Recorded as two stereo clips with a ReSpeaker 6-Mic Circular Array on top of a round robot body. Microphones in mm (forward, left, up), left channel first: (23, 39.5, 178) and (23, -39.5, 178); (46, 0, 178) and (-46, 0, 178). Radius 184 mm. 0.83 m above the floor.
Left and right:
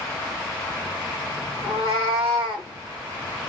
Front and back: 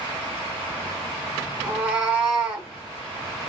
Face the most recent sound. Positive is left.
turn(degrees=-110)